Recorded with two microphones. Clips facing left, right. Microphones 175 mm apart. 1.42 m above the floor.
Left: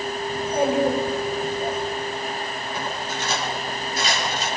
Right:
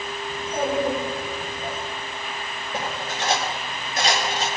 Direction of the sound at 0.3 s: 20° left (ahead or behind).